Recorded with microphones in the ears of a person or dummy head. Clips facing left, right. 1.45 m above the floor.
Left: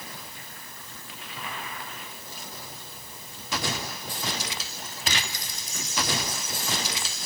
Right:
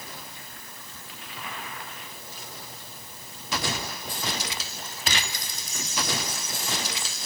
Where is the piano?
No piano in this recording.